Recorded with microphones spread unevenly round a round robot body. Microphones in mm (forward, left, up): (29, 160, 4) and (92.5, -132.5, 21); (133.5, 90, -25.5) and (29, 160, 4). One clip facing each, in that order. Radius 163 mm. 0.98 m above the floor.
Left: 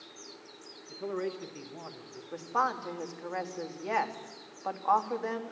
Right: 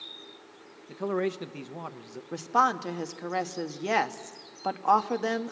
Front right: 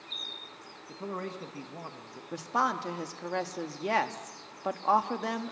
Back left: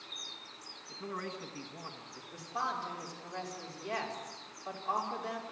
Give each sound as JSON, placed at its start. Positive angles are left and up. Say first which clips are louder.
{"t": 0.9, "sound": "a man speaking", "louder": "right 5 dB, front right 4 dB", "azimuth_deg": -80, "distance_m": 0.9}
{"t": 2.3, "sound": "a woman speaking", "louder": "right 5 dB, front right 8 dB", "azimuth_deg": -40, "distance_m": 1.3}